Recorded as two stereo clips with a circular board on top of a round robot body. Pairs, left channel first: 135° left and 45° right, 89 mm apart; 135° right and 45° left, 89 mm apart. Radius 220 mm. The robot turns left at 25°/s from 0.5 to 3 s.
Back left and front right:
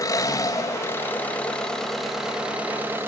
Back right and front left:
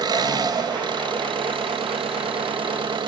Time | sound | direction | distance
0.0 | an engine running | 85° left | 3 m